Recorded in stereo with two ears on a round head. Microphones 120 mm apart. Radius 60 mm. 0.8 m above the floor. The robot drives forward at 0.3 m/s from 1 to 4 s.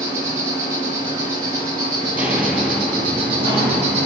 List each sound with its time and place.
0.0 s an insect: 25° right (ahead or behind), 1.7 m; by 4.1 s 50° right (ahead or behind), 0.9 m
2.0 s footsteps: 15° right (ahead or behind), 0.9 m; by 4.1 s 20° left (ahead or behind), 1.6 m